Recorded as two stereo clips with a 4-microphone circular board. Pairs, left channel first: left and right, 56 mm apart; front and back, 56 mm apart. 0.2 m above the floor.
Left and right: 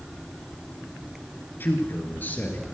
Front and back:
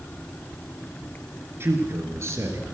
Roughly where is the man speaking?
Behind left.